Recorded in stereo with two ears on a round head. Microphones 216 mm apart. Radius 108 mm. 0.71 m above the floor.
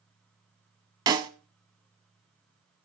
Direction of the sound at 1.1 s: 20° right (ahead or behind).